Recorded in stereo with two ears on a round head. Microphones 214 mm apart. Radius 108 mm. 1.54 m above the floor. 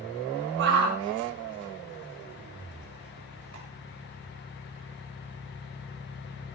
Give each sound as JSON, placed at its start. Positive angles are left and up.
{"t": 0.6, "sound": "a shout", "side_deg": -50, "distance_m": 4.5}